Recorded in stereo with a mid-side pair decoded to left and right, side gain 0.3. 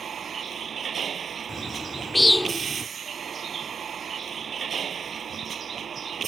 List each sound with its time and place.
0.0 s a vehicle: 65° right
1.5 s a bird: 15° left